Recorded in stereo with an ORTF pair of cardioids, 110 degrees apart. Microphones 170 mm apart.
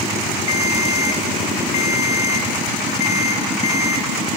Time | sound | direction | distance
0.5 | a ringtone | 45° left | 5 m